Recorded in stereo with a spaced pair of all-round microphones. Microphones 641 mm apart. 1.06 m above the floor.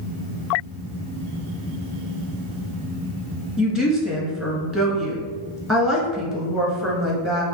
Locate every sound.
3.6 s a woman speaking: centre (ahead or behind), 1.3 m